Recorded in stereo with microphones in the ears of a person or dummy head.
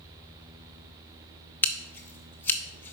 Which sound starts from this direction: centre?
Scissors, at 1.6 s.